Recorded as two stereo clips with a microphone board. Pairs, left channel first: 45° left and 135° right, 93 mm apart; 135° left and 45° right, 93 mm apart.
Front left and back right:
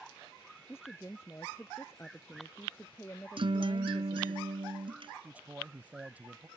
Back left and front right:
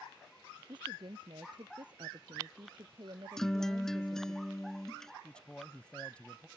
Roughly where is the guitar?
Behind right.